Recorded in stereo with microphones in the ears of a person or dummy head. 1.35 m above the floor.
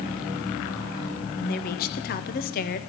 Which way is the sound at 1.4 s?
40° left (ahead or behind).